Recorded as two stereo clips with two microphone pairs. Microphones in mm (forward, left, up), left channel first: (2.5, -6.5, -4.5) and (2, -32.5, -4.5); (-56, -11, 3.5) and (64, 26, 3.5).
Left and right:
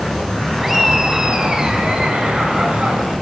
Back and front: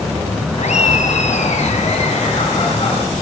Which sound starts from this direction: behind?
Laughter, at 0.6 s.